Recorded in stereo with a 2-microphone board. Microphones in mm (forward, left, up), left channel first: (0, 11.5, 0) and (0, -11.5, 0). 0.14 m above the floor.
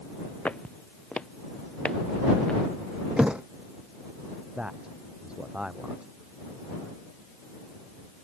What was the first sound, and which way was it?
Footsteps, 70° left (ahead or behind).